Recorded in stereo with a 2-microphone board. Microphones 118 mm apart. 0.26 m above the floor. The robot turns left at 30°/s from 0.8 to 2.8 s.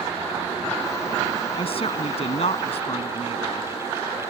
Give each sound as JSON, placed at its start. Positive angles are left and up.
{"t": 1.6, "sound": "a woman speaking", "azimuth_deg": 115}